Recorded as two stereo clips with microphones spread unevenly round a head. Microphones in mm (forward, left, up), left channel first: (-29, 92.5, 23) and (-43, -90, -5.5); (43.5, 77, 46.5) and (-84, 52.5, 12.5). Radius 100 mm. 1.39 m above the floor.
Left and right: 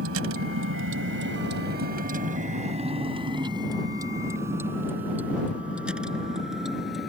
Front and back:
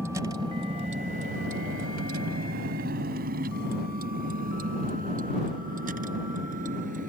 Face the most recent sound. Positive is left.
turn(degrees=175)